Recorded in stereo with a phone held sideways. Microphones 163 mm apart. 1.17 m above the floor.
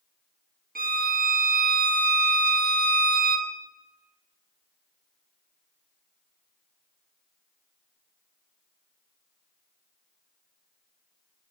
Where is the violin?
65° right (ahead or behind), 0.6 m.